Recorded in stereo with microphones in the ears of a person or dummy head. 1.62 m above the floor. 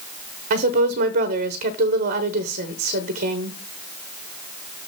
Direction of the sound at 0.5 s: 40° right (ahead or behind).